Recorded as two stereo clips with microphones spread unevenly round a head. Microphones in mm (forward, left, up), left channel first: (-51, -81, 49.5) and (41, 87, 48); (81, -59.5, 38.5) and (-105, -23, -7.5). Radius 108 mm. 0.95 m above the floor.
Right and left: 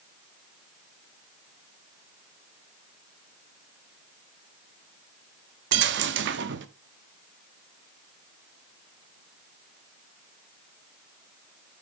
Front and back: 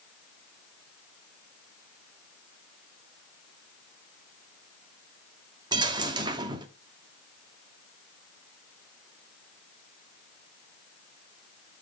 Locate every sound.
5.7 s a dropped coin: 95° left, 0.8 m